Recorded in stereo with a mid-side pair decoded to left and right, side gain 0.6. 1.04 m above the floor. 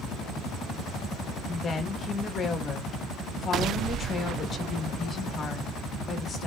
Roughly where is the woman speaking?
Ahead left.